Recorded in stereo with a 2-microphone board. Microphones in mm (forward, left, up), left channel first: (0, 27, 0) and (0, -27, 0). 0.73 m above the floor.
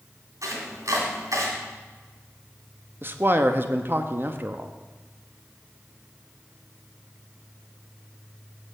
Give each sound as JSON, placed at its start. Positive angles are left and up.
{"t": 0.4, "sound": "chopping", "side_deg": -80, "distance_m": 2.5}
{"t": 3.0, "sound": "a man speaking", "side_deg": -40, "distance_m": 0.6}